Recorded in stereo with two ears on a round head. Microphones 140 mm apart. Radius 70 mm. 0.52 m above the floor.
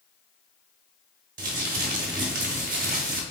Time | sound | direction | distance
1.4 | crumpling | 55° right (ahead or behind) | 0.8 m